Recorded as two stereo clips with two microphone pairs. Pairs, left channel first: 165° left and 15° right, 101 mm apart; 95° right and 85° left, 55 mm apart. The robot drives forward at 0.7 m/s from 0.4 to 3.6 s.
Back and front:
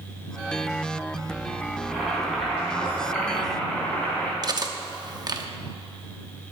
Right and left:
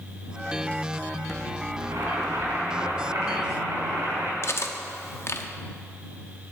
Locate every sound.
1.8 s boiling: 75° left, 4.5 m; by 4.3 s 90° left, 4 m
4.4 s cutlery clinking: 60° right, 1.0 m